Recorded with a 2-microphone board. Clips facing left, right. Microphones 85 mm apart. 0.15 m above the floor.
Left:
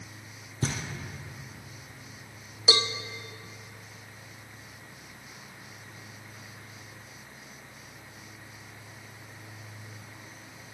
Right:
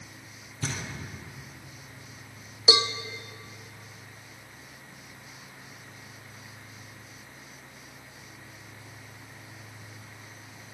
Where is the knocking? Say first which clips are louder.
Left 2 dB; 35° left (ahead or behind), 2.5 m.